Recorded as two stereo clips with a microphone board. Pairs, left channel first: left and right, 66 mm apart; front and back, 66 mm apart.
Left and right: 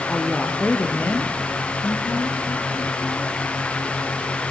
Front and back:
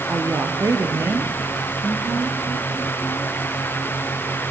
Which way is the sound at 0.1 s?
170° left.